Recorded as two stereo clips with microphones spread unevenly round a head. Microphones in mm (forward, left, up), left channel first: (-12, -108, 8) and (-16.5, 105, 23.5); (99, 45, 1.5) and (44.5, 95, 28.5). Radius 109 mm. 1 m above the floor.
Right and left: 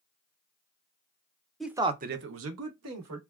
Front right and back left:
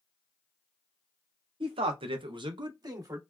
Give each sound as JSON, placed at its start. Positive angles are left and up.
{"t": 1.6, "sound": "a man speaking", "azimuth_deg": -175, "distance_m": 0.7}